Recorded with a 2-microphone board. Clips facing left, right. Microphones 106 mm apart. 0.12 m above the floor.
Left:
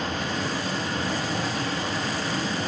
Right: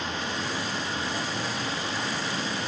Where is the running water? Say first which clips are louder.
Left 3 dB; 55° left (ahead or behind), 2.5 m.